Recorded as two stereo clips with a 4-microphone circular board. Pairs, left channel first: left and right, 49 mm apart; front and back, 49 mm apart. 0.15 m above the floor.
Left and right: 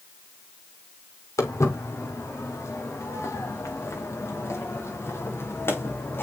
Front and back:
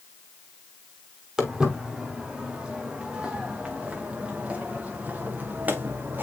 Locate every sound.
1.4 s footsteps: 100° left, 5 m; by 6.2 s 125° left, 3 m